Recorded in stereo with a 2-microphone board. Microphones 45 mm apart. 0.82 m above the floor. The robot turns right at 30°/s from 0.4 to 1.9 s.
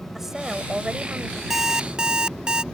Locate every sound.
0.1 s a woman speaking: 5° right (ahead or behind); by 1.4 s 35° right (ahead or behind)
1.5 s an alarm clock: 5° right (ahead or behind); by 2.6 s 15° right (ahead or behind)